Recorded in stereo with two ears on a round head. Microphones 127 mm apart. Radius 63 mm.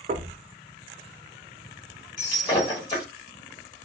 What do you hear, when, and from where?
0.1 s knocking: 45° right (ahead or behind), 0.6 m
2.2 s breaking glass: 30° left (ahead or behind), 1.4 m